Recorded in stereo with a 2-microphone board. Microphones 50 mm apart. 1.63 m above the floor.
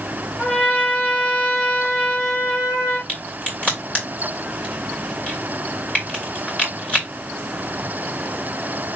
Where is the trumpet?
30° left (ahead or behind), 2 m.